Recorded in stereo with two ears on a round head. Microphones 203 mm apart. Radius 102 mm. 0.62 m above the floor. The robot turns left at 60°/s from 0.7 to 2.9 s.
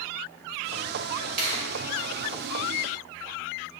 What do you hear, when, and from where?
1.4 s a finger snap: 40° right (ahead or behind), 2.5 m; by 1.7 s 55° right (ahead or behind), 2.5 m